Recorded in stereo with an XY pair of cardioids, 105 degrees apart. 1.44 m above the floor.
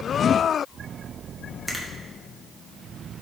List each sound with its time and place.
1.7 s a finger snap: 5° left, 1.7 m